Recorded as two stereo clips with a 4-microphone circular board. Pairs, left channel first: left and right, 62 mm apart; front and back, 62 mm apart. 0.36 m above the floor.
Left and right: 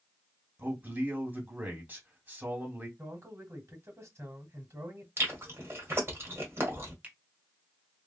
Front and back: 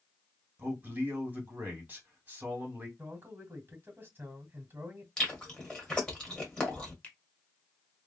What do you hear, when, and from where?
0.6 s a man speaking: 130° right, 1.9 m
3.0 s a man speaking: 125° right, 1.9 m
5.2 s chewing: 75° right, 1.6 m
7.0 s a finger snap: 50° right, 1.0 m